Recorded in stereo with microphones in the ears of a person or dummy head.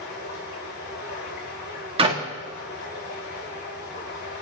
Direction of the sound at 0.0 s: 60° left (ahead or behind).